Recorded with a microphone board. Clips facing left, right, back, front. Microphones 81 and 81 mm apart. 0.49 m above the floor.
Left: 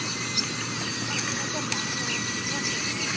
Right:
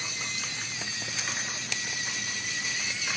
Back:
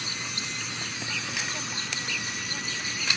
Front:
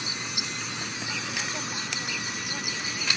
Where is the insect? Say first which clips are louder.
Left 5 dB, front 1 dB; 75° left.